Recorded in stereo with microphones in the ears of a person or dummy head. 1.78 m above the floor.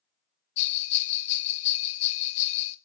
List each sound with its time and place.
0.6 s a bell: 40° left (ahead or behind), 0.5 m